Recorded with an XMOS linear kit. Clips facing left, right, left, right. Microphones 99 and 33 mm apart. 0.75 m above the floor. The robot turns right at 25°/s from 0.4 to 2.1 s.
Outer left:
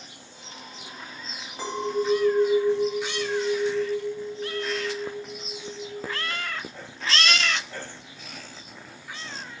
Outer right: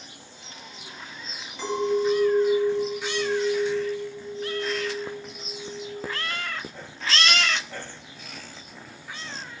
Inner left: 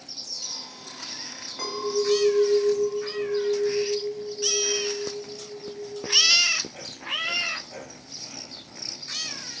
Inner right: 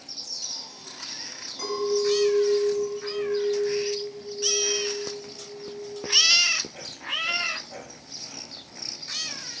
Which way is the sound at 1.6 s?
45° left (ahead or behind).